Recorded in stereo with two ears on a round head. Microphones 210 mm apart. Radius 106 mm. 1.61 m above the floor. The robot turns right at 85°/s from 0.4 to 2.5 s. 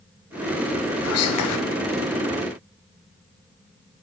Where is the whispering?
50° left, 0.6 m; by 1.6 s 100° left, 0.6 m.